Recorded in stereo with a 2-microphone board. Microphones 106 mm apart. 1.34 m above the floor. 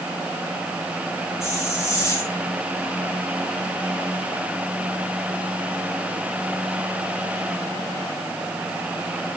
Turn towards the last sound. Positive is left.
turn(degrees=30)  # may be behind; listen again after turning